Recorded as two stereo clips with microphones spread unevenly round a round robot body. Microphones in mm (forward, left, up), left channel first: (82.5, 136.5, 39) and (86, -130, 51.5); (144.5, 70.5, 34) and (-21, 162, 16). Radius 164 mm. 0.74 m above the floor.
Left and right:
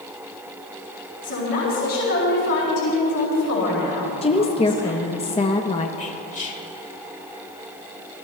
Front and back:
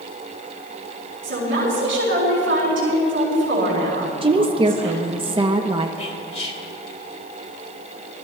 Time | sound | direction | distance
1.2 | a woman speaking | 140° left | 5.5 m
4.2 | a woman speaking | 135° left | 0.8 m
6.0 | whispering | 30° left | 2.5 m